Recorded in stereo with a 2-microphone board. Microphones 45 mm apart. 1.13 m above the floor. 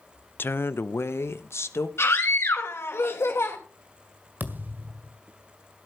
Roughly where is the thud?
Right.